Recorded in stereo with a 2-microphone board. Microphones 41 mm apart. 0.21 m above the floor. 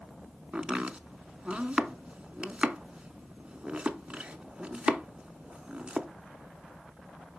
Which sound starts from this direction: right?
Chopping, at 0.5 s.